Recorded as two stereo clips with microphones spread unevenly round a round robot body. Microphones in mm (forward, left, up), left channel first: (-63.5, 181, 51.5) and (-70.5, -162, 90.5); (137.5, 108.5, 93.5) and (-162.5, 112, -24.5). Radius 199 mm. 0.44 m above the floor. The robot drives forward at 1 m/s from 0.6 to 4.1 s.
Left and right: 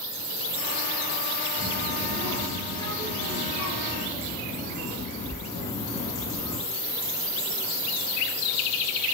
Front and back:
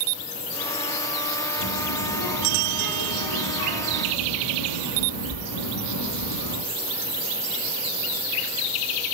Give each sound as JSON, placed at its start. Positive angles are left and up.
{"t": 1.6, "sound": "a child speaking", "azimuth_deg": 5, "distance_m": 5.5}